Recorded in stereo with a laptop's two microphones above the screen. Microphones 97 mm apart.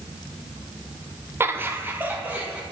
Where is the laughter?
25° right (ahead or behind), 0.6 m; by 2.6 s 15° right (ahead or behind), 1.6 m.